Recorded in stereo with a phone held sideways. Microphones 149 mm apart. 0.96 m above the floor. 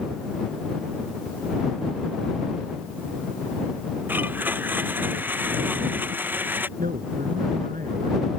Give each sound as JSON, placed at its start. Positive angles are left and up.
{"t": 4.1, "sound": "a blender", "side_deg": -15}
{"t": 6.8, "sound": "a man speaking", "side_deg": -85}